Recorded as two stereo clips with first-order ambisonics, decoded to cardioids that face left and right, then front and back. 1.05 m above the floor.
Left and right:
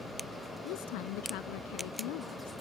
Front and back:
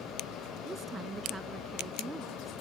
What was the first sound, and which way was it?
A woman speaking, 105° left.